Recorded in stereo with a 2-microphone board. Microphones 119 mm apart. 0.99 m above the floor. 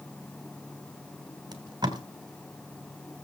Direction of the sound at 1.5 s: 35° right (ahead or behind).